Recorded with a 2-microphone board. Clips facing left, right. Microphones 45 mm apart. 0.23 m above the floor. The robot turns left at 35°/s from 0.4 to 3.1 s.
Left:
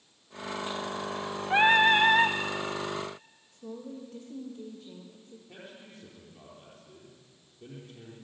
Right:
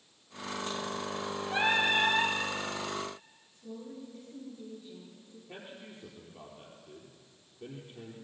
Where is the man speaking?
20° right (ahead or behind), 4.5 m.